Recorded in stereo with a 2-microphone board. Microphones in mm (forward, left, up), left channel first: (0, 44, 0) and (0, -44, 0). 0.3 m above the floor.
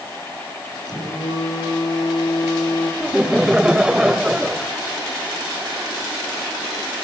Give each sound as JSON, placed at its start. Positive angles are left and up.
{"t": 0.8, "sound": "a phone buzzing", "side_deg": 45, "distance_m": 8.0}
{"t": 3.0, "sound": "laughter", "side_deg": -10, "distance_m": 1.2}